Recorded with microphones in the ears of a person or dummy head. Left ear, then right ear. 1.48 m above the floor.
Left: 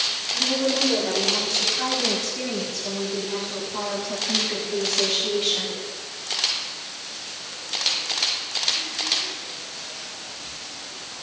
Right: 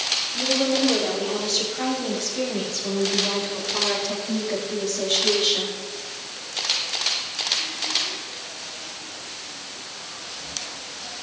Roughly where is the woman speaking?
Right.